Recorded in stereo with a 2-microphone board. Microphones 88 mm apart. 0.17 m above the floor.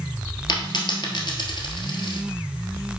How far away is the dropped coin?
About 1.4 m.